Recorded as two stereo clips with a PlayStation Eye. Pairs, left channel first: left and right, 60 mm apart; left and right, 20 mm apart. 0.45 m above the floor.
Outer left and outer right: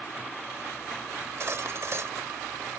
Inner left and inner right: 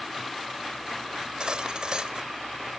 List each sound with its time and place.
1.2 s cutlery clinking: 50° right (ahead or behind), 0.9 m